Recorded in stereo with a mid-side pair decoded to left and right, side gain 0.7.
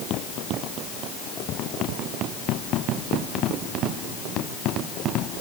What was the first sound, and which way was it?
Only background noise.